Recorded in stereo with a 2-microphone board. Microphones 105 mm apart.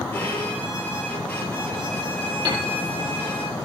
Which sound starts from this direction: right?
A piano, at 2.5 s.